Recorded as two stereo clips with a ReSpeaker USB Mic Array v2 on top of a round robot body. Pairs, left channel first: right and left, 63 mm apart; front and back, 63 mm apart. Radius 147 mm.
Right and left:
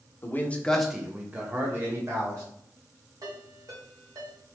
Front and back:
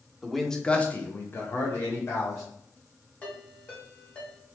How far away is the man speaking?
About 1.0 m.